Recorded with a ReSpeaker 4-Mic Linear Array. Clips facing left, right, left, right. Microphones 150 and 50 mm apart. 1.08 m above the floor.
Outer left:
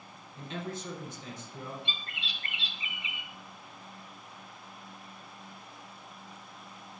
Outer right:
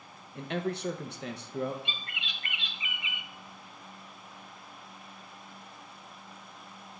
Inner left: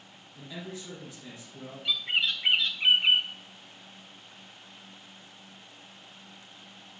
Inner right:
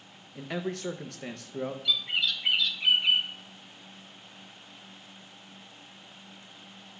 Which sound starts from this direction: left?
A bird, at 1.9 s.